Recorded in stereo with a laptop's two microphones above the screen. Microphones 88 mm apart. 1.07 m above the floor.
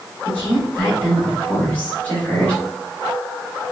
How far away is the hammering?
No hammering in this recording.